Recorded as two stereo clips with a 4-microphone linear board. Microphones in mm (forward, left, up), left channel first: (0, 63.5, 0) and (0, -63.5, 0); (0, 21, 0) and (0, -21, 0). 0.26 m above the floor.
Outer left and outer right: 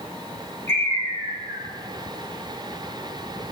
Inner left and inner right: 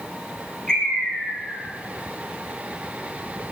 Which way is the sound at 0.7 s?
20° left (ahead or behind).